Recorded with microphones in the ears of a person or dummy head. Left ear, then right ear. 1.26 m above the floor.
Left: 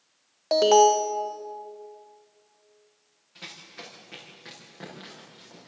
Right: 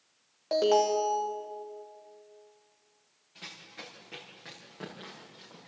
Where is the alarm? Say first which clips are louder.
Left 7 dB; 20° left (ahead or behind), 1.4 m.